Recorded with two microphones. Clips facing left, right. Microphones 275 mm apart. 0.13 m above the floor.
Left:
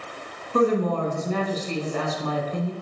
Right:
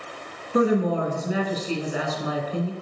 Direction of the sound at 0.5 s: 10° right (ahead or behind).